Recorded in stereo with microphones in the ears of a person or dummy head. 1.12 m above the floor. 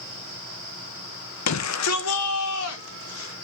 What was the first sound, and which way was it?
A shout, 75° left (ahead or behind).